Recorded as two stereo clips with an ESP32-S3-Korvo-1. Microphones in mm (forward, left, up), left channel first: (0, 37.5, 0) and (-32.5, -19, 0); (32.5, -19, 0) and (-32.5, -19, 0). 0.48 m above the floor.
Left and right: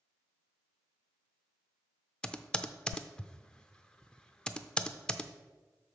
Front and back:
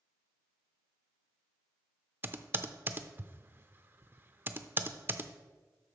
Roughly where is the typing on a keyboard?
Behind left.